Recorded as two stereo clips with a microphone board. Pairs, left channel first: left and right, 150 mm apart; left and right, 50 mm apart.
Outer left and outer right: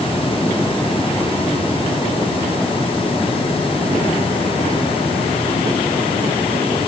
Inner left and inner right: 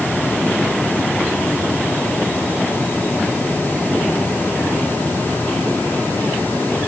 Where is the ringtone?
No ringtone in this recording.